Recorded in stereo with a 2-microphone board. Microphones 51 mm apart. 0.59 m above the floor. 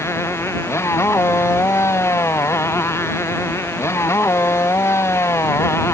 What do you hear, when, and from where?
0.0 s a motorcycle: 65° left (ahead or behind)